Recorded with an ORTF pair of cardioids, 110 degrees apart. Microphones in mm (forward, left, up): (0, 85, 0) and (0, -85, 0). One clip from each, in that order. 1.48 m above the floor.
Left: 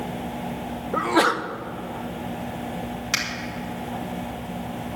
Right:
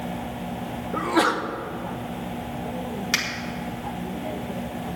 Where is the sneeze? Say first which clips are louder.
Left 2 dB; 25° left, 1.0 m.